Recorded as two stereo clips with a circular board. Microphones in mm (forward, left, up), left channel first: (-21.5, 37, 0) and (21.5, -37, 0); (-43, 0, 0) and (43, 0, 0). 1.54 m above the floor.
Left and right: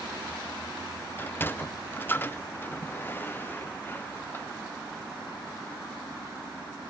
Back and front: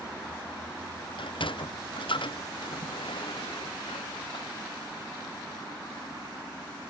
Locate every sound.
1.2 s a sliding door: 175° right